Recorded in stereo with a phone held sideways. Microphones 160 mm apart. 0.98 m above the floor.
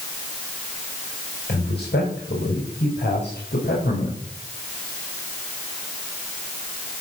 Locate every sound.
1.5 s a man speaking: 75° left (ahead or behind), 4.5 m